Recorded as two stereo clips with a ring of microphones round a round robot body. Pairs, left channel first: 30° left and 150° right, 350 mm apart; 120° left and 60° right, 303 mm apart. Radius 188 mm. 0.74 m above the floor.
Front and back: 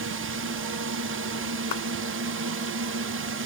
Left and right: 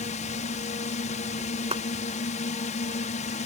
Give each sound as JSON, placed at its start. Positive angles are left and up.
{"t": 0.0, "sound": "a drone", "azimuth_deg": 175}
{"t": 1.7, "sound": "a clap", "azimuth_deg": 10}